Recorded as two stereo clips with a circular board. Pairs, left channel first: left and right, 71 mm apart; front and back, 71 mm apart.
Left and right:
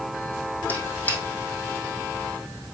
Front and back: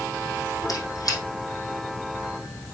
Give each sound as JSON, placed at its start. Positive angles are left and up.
{"t": 0.7, "sound": "a squeak", "azimuth_deg": 25, "distance_m": 3.0}